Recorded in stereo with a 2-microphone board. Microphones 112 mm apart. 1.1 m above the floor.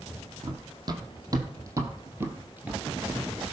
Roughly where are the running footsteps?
Right.